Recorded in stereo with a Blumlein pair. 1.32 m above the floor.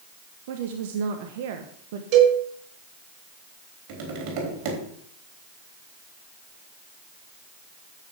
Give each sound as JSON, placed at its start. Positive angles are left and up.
{"t": 0.5, "sound": "a woman speaking", "azimuth_deg": -55, "distance_m": 1.2}
{"t": 2.1, "sound": "a cowbell", "azimuth_deg": -40, "distance_m": 5.5}
{"t": 3.9, "sound": "tapping", "azimuth_deg": -40, "distance_m": 3.5}